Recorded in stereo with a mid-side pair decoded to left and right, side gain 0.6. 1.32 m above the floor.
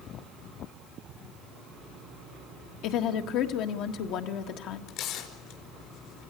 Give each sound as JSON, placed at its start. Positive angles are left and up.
{"t": 2.8, "sound": "a woman speaking", "azimuth_deg": 65, "distance_m": 1.5}
{"t": 4.9, "sound": "tearing paper", "azimuth_deg": 60, "distance_m": 4.5}